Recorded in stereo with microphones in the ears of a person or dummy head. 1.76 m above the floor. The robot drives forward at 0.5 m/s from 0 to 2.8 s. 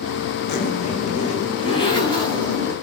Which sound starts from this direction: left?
A zipper, at 0.5 s.